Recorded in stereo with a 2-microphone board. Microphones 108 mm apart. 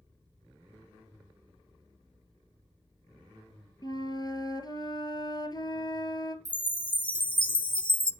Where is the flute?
40° left (ahead or behind), 1.6 m.